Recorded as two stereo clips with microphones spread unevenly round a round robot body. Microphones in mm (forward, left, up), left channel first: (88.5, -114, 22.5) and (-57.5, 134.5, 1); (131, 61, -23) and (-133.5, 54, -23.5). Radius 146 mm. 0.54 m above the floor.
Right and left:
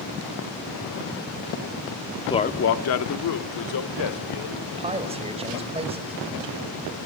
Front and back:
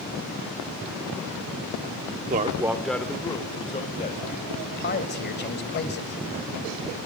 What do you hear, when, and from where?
2.3 s a man speaking: 135° right, 0.7 m; by 4.6 s 60° right, 2.5 m
4.7 s a man speaking: 50° left, 2 m